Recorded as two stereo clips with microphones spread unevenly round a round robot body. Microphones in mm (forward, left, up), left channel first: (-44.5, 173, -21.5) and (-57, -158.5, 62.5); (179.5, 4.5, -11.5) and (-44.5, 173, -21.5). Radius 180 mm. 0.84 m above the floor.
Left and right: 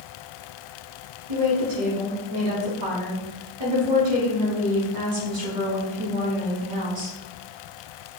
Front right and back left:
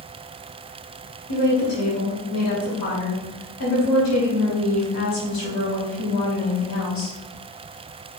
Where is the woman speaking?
70° right, 3 m.